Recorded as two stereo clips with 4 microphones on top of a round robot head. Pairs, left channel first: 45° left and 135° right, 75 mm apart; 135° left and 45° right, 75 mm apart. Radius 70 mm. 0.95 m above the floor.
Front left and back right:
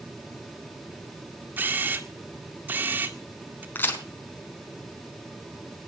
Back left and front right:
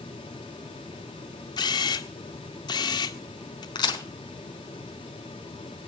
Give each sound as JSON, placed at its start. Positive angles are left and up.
{"t": 1.6, "sound": "a camera shutter", "azimuth_deg": 160, "distance_m": 1.8}
{"t": 3.8, "sound": "a crack", "azimuth_deg": 110, "distance_m": 5.0}